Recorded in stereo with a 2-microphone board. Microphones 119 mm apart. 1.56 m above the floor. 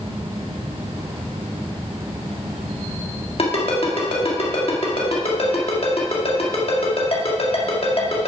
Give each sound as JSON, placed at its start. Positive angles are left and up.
{"t": 3.4, "sound": "a ringtone", "side_deg": 55, "distance_m": 1.7}